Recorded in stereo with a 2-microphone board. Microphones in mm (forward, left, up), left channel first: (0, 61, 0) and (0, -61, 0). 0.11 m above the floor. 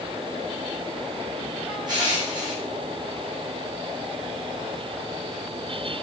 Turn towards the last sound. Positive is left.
turn(degrees=-35)  # may be behind; listen again after turning